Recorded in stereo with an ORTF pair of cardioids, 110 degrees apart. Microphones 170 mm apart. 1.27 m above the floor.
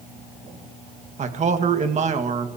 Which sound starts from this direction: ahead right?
A man speaking, at 1.2 s.